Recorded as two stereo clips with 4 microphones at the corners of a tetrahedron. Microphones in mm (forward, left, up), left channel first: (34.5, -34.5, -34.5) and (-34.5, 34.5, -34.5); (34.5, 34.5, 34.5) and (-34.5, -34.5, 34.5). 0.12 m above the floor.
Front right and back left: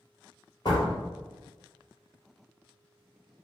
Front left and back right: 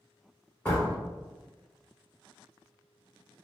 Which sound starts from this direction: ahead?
A door slam, at 0.7 s.